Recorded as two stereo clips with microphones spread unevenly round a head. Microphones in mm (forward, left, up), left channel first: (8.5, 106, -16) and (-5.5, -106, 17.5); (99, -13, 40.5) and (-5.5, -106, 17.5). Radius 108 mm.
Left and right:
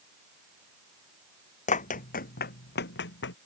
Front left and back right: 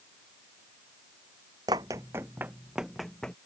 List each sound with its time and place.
1.7 s running footsteps: 145° left; by 3.4 s 125° left